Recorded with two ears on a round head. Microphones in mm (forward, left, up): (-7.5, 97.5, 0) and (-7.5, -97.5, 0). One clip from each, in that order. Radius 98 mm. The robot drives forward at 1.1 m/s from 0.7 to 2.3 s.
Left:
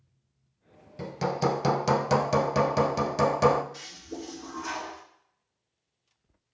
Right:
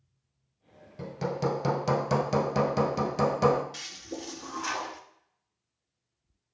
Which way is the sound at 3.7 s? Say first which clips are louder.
Right 2 dB; 75° right (ahead or behind).